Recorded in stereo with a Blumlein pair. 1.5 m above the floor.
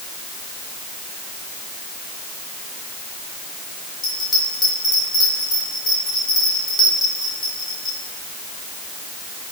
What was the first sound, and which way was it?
A bell, 25° left.